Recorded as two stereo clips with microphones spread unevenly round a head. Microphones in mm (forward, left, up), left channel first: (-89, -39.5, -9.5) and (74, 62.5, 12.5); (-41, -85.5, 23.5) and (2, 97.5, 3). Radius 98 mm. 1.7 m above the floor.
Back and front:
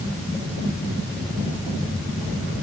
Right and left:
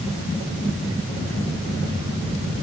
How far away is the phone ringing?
I don't hear a phone ringing.